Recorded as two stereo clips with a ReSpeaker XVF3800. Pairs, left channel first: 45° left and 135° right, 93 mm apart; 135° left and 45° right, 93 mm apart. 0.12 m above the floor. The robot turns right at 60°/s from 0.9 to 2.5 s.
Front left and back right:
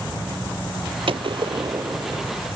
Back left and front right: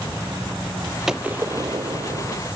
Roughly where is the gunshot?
Behind right.